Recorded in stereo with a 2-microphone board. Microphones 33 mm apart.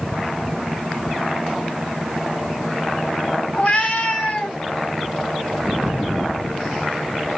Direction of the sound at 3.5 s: 35° left (ahead or behind).